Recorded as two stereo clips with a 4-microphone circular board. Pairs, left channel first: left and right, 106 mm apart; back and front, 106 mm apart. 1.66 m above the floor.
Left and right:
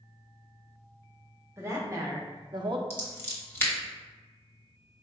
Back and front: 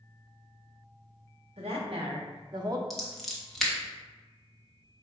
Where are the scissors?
90° left, 1.1 m.